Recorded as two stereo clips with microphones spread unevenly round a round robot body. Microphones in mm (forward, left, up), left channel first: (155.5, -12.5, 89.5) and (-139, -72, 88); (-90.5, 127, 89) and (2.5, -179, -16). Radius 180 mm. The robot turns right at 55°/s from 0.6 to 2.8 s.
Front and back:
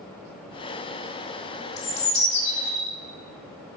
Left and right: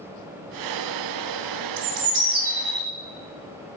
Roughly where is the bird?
Ahead right.